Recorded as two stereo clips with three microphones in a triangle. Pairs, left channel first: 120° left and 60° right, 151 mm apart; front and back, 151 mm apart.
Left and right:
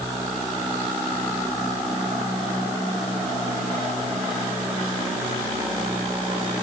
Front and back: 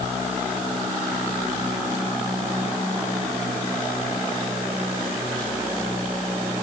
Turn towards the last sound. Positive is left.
No sound to turn to.